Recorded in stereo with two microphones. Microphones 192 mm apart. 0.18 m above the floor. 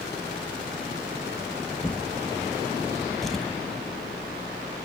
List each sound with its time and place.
1.8 s a drawer: centre (ahead or behind), 2 m